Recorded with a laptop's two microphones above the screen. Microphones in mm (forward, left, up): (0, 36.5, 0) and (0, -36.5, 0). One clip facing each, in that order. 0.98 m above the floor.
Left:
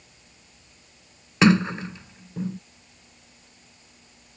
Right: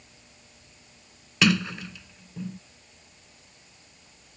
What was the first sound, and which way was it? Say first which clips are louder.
A sliding door: left 5 dB; 30° left (ahead or behind).